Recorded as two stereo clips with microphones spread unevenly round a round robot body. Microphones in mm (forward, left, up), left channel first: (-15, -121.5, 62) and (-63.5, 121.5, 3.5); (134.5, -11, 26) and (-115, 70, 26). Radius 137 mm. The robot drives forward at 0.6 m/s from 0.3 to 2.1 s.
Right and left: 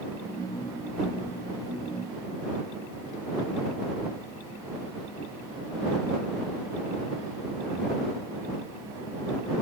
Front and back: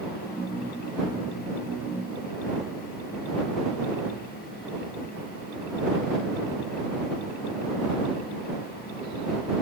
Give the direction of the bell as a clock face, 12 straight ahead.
I don't hear a bell.